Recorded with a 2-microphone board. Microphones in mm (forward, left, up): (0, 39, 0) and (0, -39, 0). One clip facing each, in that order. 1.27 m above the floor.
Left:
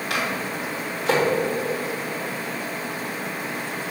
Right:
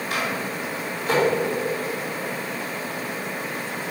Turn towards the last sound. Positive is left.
turn(degrees=70)  # may be behind; listen again after turning